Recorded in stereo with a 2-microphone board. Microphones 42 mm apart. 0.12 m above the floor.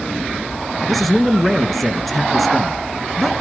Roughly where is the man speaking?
Centre.